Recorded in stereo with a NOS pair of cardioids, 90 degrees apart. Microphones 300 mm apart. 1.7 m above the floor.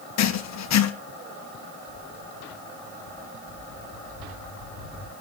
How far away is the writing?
About 1.4 m.